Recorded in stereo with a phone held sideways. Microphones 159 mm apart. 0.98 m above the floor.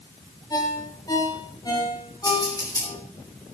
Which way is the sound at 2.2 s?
20° left (ahead or behind).